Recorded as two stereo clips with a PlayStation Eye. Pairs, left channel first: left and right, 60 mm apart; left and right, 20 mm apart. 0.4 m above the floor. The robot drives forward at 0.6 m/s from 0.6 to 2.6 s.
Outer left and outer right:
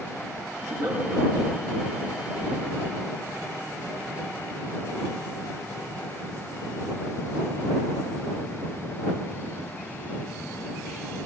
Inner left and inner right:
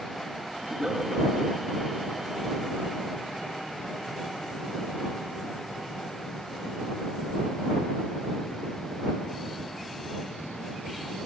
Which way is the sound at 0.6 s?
75° right (ahead or behind).